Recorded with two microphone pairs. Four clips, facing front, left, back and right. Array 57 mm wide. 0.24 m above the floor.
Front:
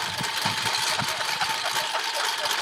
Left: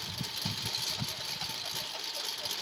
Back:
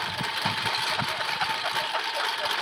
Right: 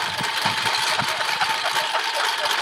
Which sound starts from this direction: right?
A lawn mower, at 0.0 s.